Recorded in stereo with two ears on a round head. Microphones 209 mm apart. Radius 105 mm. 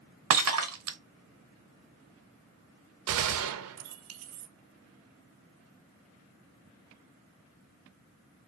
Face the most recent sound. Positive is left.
turn(degrees=-65)  # may be behind; listen again after turning